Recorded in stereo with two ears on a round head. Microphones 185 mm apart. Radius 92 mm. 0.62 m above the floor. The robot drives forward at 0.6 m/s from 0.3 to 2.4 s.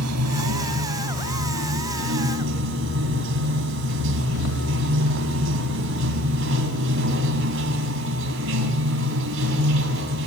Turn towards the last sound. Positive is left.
turn(degrees=-65)  # may be behind; listen again after turning